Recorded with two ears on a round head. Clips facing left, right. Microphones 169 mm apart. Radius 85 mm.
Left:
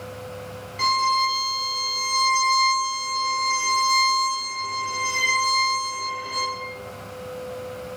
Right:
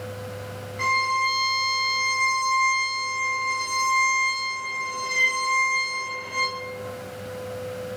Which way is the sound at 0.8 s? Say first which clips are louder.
Left 3 dB; 40° left (ahead or behind).